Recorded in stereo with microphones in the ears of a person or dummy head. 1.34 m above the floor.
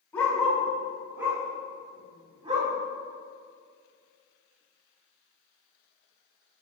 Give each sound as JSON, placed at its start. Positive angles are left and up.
{"t": 0.1, "sound": "a dog barking", "side_deg": 15, "distance_m": 2.5}